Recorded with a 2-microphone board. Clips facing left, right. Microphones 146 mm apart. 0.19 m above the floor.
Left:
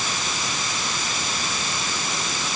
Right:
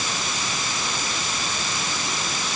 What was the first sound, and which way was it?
Only background noise.